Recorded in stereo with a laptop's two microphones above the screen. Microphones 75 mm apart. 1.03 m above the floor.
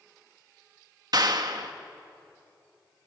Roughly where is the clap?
Right.